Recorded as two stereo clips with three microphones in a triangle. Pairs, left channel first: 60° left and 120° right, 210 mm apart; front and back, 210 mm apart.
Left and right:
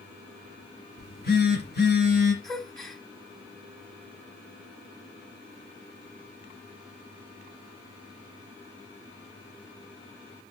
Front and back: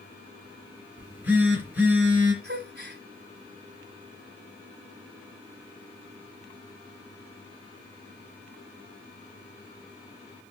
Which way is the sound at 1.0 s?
100° left.